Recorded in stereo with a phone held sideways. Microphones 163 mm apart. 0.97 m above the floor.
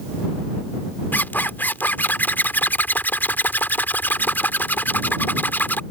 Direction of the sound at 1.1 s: 10° left (ahead or behind).